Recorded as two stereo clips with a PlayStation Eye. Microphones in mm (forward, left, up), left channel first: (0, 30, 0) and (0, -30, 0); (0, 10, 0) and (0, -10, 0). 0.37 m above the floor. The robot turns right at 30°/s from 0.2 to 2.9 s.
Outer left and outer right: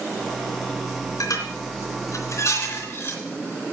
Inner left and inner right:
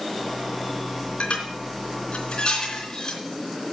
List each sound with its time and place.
1.2 s dishes clattering: 75° left (ahead or behind), 3.5 m; by 3.2 s 45° left (ahead or behind), 3.5 m